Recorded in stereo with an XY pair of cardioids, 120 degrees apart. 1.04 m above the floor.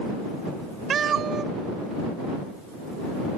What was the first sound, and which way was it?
A cat meowing, 45° right.